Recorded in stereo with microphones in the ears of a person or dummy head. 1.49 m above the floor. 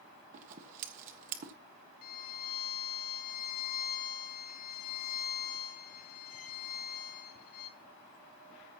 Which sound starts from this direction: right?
Scissors, at 0.3 s.